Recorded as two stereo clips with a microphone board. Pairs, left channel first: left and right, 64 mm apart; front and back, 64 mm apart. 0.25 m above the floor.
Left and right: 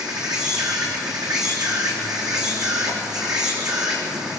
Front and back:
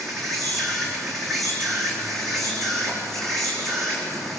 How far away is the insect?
About 4 m.